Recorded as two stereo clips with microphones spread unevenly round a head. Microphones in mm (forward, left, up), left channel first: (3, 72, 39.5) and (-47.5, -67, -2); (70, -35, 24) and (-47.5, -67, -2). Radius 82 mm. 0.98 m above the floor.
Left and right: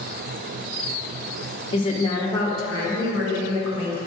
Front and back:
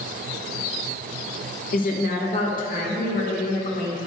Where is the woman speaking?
5° left, 1.2 m; by 4.0 s 15° right, 2 m.